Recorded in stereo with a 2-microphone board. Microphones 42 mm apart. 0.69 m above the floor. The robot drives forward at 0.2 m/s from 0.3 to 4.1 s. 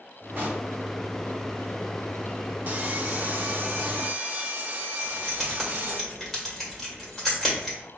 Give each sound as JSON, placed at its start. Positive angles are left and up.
{"t": 0.4, "sound": "a pop", "side_deg": -55, "distance_m": 2.0}
{"t": 2.7, "sound": "sawing", "side_deg": -40, "distance_m": 0.7}
{"t": 5.0, "sound": "keys jangling", "side_deg": 0, "distance_m": 1.9}